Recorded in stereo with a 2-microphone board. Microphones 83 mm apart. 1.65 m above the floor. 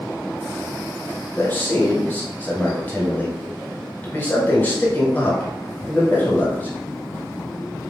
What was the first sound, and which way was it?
A man speaking, 20° left (ahead or behind).